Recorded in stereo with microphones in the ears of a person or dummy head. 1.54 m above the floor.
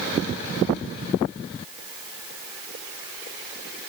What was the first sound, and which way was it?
Only background noise.